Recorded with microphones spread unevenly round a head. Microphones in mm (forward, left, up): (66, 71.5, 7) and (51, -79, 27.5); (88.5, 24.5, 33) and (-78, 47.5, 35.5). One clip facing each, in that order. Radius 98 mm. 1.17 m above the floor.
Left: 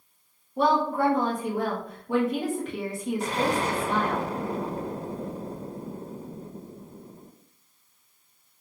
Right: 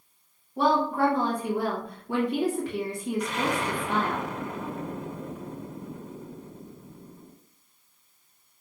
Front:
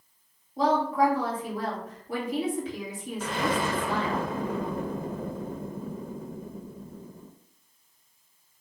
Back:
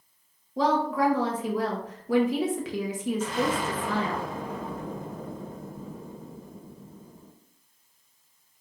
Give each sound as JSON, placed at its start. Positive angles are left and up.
{"t": 0.6, "sound": "a woman speaking", "azimuth_deg": 170, "distance_m": 1.1}
{"t": 3.2, "sound": "an explosion", "azimuth_deg": 25, "distance_m": 0.6}